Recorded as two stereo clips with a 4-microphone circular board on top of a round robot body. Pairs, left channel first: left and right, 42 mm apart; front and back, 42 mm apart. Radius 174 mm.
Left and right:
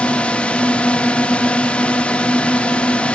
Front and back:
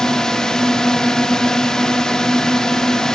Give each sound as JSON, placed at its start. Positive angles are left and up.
{"t": 0.0, "sound": "a drone", "azimuth_deg": 65}